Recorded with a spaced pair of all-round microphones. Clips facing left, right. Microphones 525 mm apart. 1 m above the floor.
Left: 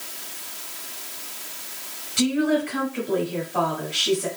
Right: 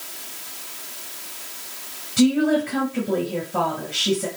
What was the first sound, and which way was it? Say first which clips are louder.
A woman speaking: right 4 dB; 70° right (ahead or behind).